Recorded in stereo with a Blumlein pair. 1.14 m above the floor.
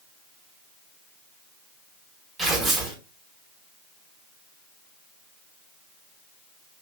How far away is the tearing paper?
About 0.9 m.